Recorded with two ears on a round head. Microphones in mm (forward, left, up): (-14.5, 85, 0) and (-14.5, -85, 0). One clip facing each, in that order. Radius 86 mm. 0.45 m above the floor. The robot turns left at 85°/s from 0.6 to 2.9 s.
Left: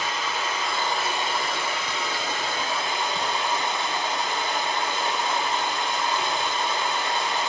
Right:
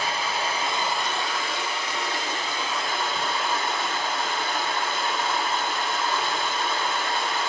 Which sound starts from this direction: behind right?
Running water, at 0.0 s.